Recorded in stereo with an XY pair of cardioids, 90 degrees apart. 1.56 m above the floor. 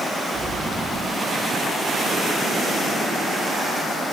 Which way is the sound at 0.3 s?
60° right.